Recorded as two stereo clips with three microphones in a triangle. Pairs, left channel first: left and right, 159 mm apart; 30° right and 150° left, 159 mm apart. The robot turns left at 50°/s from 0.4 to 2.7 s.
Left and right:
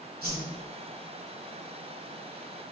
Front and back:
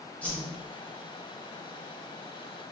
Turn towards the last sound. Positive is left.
turn(degrees=135)